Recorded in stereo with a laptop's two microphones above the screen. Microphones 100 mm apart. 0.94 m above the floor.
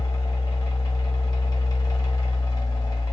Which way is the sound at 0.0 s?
40° left (ahead or behind).